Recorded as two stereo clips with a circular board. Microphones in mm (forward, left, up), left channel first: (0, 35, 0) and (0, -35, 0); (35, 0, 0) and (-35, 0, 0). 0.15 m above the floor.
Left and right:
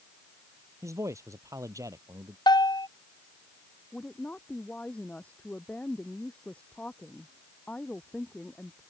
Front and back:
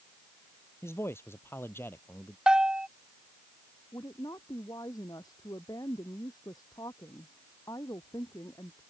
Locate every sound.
0.8 s a man speaking: 50° right; by 2.4 s 60° right
2.5 s a bell: 100° left
3.9 s a woman speaking: 20° left